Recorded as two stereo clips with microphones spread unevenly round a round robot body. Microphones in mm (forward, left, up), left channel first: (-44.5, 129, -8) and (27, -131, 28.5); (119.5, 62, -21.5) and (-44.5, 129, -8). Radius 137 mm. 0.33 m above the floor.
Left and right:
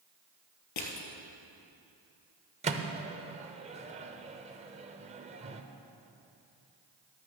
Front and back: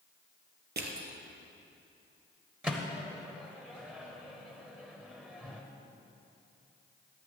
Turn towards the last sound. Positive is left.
turn(degrees=-115)